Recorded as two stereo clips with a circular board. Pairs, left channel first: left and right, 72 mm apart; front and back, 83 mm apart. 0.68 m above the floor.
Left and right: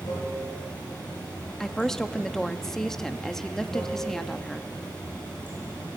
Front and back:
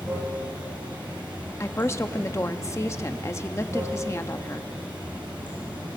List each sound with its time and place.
0.0 s running water: 110° left, 8.5 m
1.6 s a woman speaking: 15° left, 0.8 m